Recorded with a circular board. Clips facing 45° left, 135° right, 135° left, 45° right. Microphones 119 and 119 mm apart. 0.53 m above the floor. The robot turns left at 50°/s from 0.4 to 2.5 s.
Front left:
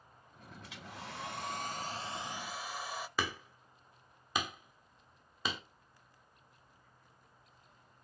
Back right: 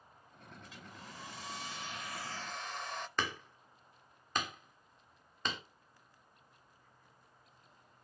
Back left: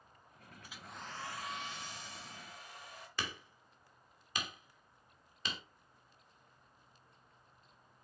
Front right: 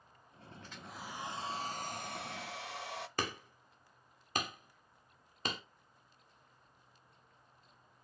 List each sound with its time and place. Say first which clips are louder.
0.6 s a hair dryer: front left 6 dB, front right 1 dB; 55° left, 0.6 m; by 3.1 s 35° right, 0.6 m
3.2 s hammering: front left 1 dB, front right 2 dB; 35° right, 1.4 m